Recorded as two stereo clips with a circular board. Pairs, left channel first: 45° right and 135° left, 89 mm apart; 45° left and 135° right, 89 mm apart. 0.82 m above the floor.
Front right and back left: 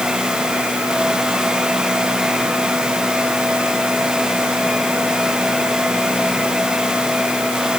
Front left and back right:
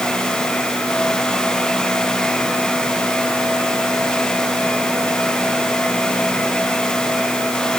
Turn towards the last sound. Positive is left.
No sound to turn to.